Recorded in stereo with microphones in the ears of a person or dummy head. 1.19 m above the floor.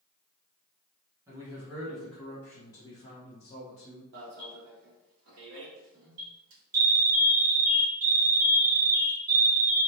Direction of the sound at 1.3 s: 20° right (ahead or behind).